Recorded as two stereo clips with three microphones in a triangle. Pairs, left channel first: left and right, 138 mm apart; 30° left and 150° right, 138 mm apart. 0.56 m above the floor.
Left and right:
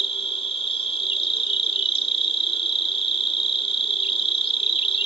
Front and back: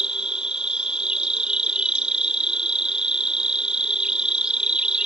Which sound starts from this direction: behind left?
An insect, at 0.0 s.